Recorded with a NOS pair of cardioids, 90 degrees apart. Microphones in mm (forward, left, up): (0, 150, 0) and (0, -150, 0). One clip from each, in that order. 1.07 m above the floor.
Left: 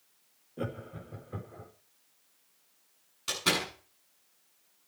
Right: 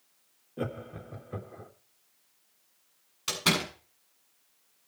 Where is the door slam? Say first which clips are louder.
Right 2 dB; 40° right, 7.5 m.